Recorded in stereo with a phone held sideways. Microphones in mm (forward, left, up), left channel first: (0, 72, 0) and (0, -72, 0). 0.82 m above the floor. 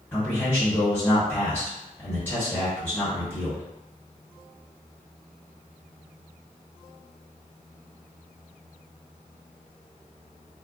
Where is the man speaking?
15° left (ahead or behind), 1.5 m.